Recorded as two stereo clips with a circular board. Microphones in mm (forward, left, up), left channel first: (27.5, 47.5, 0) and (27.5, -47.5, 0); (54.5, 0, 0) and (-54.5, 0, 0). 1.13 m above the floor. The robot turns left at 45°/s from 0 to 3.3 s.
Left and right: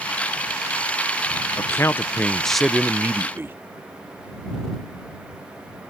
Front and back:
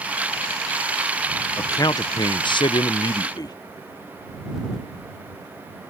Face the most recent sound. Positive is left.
turn(degrees=-35)